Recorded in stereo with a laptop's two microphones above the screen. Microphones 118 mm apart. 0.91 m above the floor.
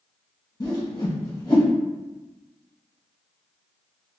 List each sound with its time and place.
0.6 s a whoosh: 35° left (ahead or behind), 1.3 m